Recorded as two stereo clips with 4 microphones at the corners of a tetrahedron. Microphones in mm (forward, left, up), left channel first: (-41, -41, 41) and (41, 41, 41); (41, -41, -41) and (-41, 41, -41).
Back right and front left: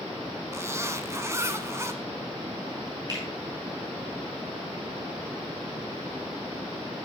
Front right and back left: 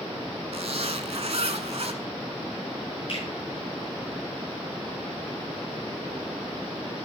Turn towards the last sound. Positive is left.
turn(degrees=-10)